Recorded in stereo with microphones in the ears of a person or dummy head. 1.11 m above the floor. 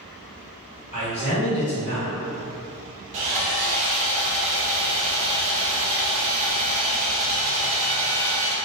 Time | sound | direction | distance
0.9 | a man speaking | 35° left (ahead or behind) | 1.7 m
3.1 | sawing | 35° right (ahead or behind) | 0.9 m